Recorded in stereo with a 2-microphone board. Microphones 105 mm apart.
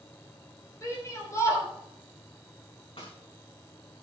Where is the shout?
30° left (ahead or behind), 4.5 m.